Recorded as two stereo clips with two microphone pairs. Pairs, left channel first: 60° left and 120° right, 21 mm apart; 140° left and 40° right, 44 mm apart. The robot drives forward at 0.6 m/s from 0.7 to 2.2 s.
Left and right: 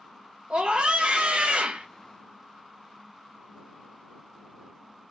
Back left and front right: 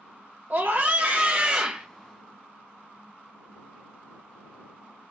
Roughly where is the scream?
Right.